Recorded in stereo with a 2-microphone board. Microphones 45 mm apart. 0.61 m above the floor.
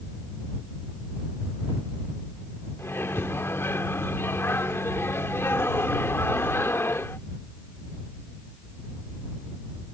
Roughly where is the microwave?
Left.